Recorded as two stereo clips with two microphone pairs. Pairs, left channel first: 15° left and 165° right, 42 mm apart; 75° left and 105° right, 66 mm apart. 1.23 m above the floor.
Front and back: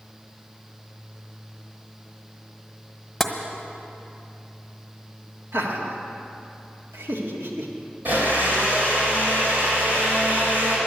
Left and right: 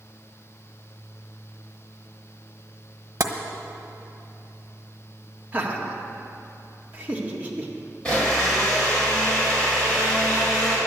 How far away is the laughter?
About 1.7 m.